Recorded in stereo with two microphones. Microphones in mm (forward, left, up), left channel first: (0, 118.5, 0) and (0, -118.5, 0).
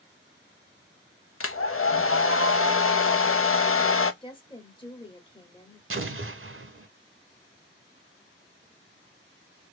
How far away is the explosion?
About 0.6 m.